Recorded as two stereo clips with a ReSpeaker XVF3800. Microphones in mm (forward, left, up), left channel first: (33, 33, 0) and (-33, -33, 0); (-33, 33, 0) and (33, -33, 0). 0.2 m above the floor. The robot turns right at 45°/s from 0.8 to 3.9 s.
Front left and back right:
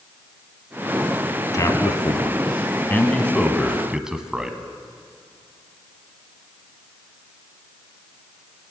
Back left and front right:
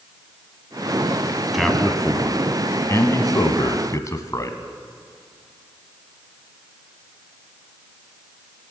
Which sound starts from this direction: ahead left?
A man speaking, at 1.5 s.